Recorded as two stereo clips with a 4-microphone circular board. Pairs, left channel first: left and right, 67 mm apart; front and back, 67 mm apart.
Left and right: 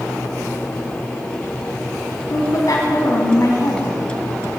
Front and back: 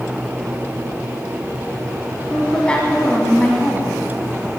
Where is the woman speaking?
75° left, 2.5 m.